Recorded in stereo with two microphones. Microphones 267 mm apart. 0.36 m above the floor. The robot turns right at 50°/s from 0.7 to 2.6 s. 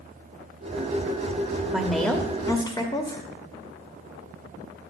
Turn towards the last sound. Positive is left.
turn(degrees=15)  # may be behind; listen again after turning